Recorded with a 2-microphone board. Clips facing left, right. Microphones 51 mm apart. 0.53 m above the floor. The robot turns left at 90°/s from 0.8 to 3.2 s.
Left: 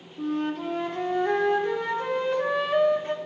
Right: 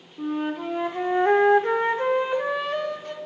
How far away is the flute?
About 0.8 m.